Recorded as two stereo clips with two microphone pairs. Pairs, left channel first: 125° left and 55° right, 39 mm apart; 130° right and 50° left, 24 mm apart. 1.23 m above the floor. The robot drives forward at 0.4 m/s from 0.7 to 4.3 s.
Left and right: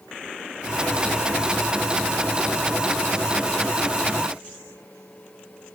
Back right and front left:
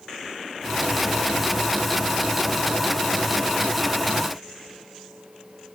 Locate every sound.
Only background noise.